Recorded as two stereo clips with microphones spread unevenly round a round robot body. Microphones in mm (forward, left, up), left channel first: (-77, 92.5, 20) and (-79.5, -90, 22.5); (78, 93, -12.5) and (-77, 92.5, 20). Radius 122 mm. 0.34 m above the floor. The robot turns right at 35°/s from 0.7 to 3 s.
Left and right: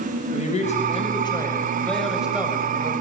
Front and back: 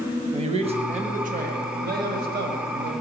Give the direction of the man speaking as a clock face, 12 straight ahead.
8 o'clock.